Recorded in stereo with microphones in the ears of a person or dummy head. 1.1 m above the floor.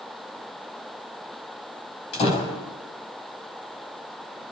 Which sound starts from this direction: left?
A door slam, at 2.1 s.